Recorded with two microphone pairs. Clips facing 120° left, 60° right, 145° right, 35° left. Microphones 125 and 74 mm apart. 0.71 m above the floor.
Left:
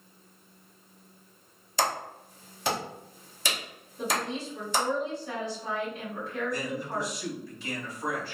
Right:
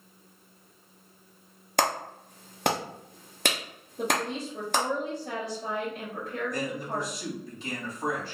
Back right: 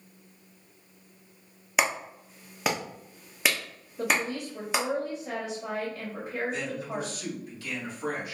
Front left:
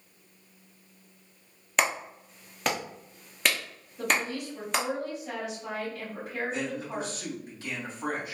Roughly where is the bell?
No bell in this recording.